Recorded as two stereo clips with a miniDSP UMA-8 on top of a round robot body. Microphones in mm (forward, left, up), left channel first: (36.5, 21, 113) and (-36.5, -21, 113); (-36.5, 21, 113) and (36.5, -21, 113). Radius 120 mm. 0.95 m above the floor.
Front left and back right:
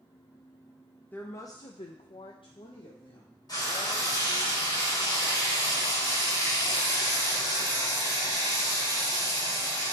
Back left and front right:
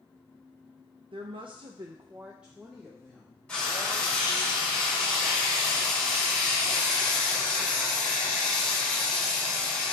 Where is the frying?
75° left, 4 m.